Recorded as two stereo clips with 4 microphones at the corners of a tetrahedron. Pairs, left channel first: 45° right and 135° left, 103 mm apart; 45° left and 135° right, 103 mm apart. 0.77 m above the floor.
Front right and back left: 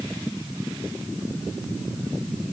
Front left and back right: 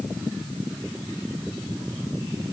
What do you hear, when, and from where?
Only background noise.